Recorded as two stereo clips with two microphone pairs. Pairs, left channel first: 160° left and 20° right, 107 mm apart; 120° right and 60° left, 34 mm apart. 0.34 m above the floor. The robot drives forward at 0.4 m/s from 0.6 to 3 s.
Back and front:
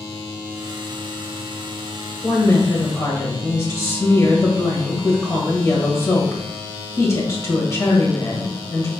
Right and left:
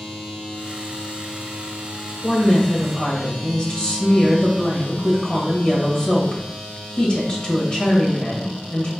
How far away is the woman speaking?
About 1.3 m.